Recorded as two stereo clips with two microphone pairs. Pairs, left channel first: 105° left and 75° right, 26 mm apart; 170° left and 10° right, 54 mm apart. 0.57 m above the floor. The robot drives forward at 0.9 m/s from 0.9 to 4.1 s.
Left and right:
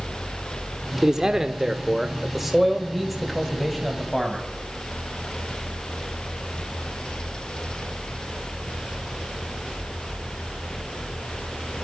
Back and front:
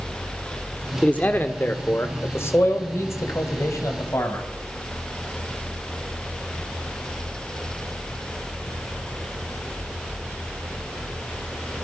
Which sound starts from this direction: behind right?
A man speaking, at 1.0 s.